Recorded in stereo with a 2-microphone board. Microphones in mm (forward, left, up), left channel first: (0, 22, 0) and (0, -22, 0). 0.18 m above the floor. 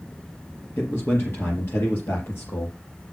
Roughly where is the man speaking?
Left.